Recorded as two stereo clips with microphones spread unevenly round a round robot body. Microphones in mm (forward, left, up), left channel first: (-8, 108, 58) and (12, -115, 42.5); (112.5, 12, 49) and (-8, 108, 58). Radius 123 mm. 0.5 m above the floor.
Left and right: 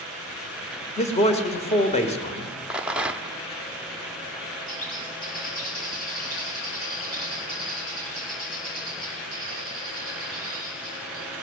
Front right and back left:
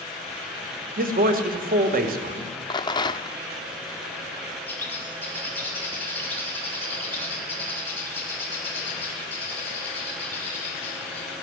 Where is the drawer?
I don't hear a drawer.